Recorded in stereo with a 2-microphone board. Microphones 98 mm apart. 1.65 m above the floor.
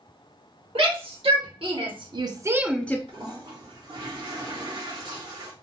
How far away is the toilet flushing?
About 1.9 m.